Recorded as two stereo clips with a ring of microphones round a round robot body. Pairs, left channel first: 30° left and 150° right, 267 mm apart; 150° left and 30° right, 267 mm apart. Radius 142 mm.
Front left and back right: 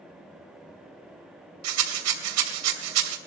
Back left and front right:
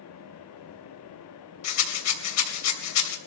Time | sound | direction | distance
1.6 | a rattle | straight behind | 2.5 m